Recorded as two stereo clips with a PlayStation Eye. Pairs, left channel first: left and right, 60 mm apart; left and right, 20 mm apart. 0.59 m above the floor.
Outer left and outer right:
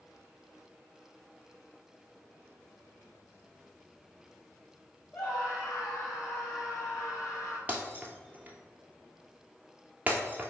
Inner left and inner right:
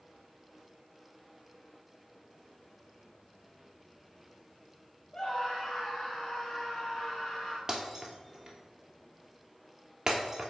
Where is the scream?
20° left (ahead or behind), 3 m; by 7.6 s 55° left (ahead or behind), 3.5 m.